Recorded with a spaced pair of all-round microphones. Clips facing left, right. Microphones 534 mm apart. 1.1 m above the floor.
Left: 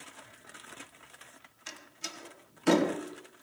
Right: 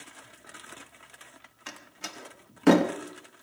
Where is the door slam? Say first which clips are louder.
Right 3 dB; 75° right (ahead or behind), 1.4 m.